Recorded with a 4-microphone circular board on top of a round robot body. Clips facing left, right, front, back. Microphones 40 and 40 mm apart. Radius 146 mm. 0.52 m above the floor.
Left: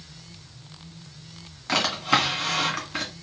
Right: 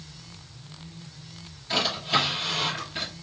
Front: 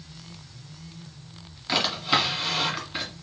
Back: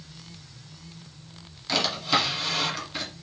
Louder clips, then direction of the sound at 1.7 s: Left 3 dB, front 1 dB; 75° left.